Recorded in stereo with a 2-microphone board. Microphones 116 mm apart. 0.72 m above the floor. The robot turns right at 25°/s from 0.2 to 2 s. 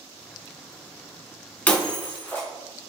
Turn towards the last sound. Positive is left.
turn(degrees=20)  # may be behind; listen again after turning